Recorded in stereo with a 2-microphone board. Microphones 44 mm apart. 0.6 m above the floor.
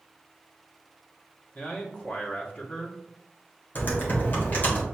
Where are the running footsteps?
I don't hear running footsteps.